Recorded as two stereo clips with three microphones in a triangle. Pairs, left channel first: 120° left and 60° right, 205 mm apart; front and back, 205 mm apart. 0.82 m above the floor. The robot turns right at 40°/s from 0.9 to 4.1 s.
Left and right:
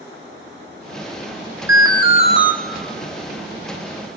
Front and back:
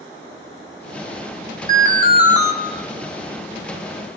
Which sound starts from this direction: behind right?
An alarm, at 1.7 s.